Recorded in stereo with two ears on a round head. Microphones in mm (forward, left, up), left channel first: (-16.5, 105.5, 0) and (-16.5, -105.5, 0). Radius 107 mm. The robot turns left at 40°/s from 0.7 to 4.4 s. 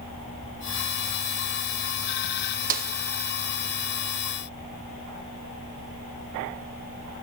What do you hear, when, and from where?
2.7 s a snare drum: 35° right (ahead or behind), 1.5 m; by 2.9 s 40° right (ahead or behind), 1.5 m